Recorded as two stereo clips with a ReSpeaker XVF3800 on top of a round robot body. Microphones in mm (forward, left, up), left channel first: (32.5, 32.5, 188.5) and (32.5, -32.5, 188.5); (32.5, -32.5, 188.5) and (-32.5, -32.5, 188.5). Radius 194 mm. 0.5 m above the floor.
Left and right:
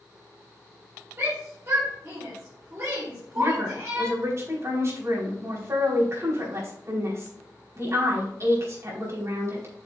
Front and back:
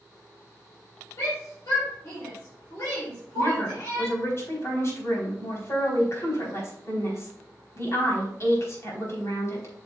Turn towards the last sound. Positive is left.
turn(degrees=-45)